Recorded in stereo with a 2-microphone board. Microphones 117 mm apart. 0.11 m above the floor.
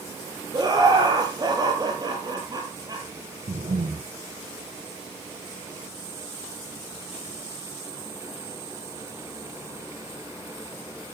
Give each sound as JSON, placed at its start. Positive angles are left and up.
{"t": 0.5, "sound": "laughter", "side_deg": -35, "distance_m": 3.0}
{"t": 3.5, "sound": "breathing", "side_deg": -75, "distance_m": 4.5}